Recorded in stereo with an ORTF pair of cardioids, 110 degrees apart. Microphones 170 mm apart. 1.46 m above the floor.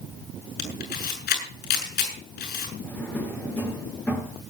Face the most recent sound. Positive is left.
turn(degrees=10)